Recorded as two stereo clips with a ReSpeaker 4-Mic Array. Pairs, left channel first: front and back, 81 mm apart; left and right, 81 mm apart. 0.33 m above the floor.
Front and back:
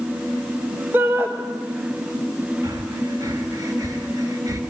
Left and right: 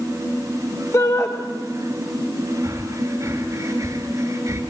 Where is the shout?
125° left, 1.7 m.